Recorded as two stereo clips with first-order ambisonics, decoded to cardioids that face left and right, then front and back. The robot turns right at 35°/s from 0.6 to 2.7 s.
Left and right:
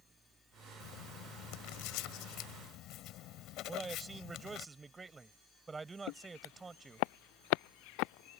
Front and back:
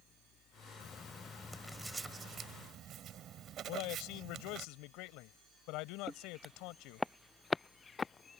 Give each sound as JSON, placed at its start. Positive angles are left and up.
{"t": 0.8, "sound": "writing", "azimuth_deg": 60}
{"t": 3.7, "sound": "a man speaking", "azimuth_deg": -15}
{"t": 6.1, "sound": "footsteps", "azimuth_deg": 95}